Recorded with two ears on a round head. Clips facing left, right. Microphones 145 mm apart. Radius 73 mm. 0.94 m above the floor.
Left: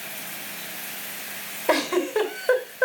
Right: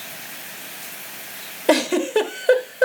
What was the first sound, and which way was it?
A giggle, 35° right (ahead or behind).